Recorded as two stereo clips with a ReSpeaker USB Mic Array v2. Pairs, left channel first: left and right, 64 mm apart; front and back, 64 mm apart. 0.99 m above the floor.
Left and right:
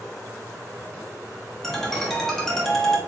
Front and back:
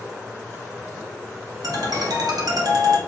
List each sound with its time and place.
1.6 s a ringtone: 175° left, 1.1 m